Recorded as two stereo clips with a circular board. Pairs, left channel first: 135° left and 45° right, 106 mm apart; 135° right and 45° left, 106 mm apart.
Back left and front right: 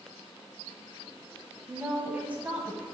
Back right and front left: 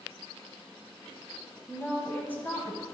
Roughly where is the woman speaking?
Right.